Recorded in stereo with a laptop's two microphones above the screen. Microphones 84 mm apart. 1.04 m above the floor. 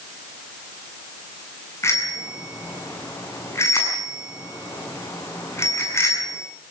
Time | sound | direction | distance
1.8 | a bicycle bell | 30° left (ahead or behind) | 8 m